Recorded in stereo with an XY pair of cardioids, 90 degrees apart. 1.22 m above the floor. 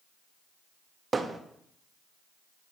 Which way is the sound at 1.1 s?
35° right.